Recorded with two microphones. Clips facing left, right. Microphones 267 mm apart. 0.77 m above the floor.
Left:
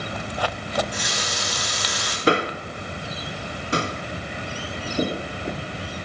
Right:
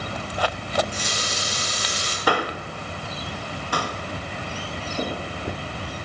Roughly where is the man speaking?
Left.